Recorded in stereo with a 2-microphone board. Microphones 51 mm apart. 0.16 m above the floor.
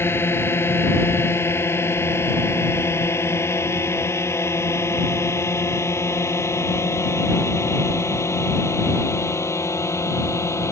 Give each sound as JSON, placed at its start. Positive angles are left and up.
{"t": 0.0, "sound": "a drone", "side_deg": 55}